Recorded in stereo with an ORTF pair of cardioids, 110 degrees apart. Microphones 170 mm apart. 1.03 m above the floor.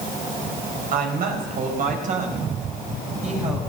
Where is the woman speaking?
60° right, 4.5 m; by 3.6 s 40° right, 5.5 m.